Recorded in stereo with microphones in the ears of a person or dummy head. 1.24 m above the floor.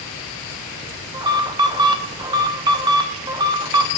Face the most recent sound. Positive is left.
turn(degrees=-20)  # may be behind; listen again after turning